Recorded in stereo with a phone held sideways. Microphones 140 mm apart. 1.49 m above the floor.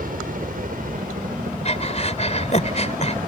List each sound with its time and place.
0.0 s a helicopter: 75° right (ahead or behind); by 3.3 s 80° right
1.6 s breathing: 50° left (ahead or behind)